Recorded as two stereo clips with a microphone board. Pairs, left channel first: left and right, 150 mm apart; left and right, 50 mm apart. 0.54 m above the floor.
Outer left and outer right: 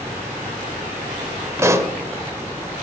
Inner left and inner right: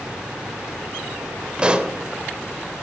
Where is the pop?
20° right (ahead or behind), 0.7 m.